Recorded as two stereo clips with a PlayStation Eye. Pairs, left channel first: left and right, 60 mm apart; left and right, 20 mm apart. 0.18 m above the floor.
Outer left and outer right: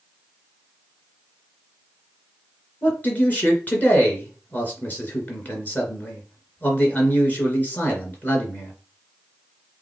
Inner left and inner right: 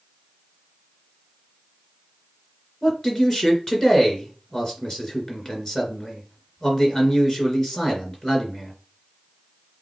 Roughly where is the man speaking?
Left.